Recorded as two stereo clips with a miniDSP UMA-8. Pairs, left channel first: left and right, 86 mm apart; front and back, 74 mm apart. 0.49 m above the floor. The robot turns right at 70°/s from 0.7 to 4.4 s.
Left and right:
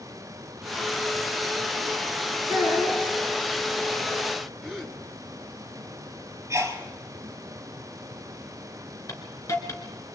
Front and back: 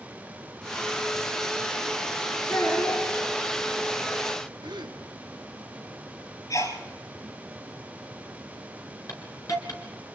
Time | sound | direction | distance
2.5 | a child speaking | 35° right | 5.5 m
4.6 | a gasp | 175° left | 2 m
6.5 | a sneeze | 35° right | 4 m
9.1 | a hiss | 40° left | 2.5 m